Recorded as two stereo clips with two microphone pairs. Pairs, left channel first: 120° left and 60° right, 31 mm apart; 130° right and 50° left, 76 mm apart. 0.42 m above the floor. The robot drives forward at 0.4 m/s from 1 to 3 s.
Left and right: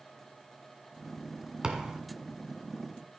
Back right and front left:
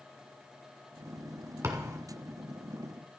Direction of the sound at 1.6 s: Straight ahead.